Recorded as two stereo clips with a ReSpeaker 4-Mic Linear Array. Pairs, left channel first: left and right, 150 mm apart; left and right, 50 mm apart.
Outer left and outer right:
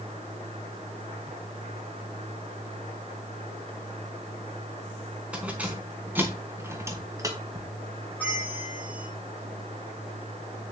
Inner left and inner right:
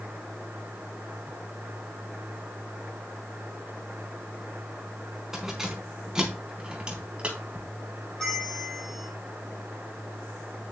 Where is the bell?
10° left (ahead or behind), 5.5 m.